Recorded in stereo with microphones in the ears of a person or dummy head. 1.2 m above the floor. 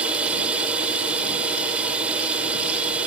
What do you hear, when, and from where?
0.0 s a drone: 5° right (ahead or behind)